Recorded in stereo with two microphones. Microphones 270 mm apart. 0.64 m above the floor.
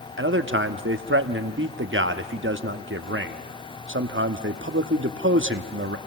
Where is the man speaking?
45° right (ahead or behind), 1.0 m.